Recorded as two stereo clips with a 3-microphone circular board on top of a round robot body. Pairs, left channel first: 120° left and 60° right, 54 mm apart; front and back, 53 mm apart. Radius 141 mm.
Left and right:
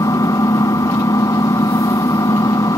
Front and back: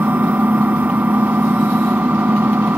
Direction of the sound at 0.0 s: 120° left.